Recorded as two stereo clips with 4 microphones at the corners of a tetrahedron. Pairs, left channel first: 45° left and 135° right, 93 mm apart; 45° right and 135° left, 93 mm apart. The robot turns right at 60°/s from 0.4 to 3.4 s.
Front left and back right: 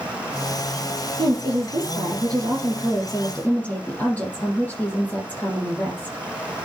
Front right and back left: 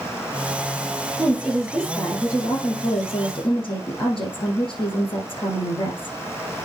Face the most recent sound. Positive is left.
turn(degrees=-25)